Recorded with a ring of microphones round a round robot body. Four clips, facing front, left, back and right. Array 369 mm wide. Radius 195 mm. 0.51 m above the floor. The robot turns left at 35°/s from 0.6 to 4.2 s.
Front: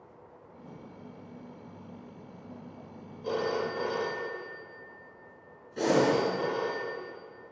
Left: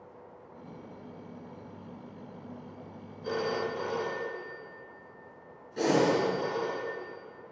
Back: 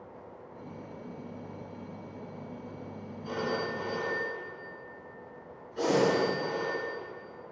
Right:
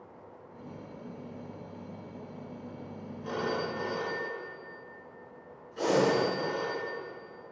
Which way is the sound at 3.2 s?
25° left.